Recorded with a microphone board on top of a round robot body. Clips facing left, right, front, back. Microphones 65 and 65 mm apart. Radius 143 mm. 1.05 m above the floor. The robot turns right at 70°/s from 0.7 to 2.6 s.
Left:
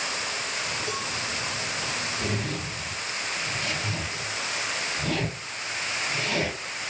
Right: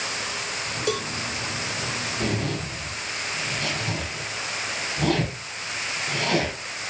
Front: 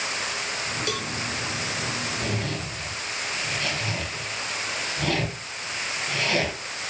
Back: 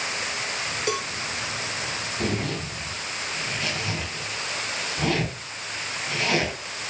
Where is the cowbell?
115° right, 1.1 m; by 1.1 s 100° right, 1.1 m.